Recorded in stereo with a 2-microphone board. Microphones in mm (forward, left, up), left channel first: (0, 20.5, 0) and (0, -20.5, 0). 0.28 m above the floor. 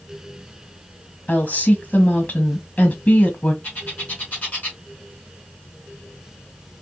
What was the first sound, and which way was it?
A woman speaking, 35° left (ahead or behind).